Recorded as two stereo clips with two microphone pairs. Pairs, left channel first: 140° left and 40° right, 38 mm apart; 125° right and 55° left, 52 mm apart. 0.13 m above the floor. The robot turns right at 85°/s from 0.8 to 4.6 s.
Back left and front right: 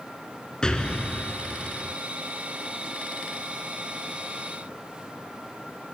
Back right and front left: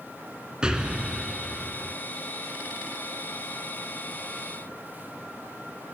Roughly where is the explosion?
Left.